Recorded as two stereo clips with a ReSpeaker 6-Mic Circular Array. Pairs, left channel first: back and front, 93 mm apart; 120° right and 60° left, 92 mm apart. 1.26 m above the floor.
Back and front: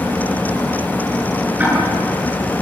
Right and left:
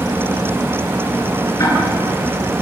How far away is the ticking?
About 8 m.